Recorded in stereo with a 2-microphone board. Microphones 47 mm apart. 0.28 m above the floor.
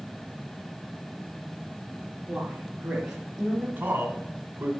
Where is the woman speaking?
25° right (ahead or behind), 3.5 m; by 3.7 s 5° right (ahead or behind), 3.5 m.